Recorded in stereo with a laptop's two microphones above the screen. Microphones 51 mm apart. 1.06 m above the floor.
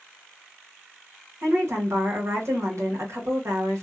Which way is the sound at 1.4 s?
75° right (ahead or behind).